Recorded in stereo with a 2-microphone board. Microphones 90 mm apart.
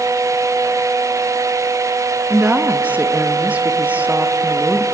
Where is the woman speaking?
20° right (ahead or behind), 1.0 m.